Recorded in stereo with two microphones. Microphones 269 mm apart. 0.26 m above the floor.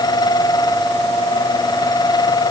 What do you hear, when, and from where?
Only background noise.